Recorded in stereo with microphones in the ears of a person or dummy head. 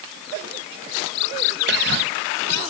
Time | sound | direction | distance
1.7 | whispering | 60° right (ahead or behind) | 0.7 m